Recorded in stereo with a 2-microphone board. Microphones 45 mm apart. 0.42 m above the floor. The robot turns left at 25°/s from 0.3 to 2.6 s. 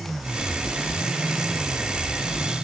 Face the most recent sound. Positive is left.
No sound to turn to.